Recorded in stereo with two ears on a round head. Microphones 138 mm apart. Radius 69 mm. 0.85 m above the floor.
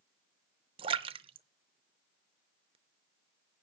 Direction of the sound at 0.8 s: 35° right (ahead or behind).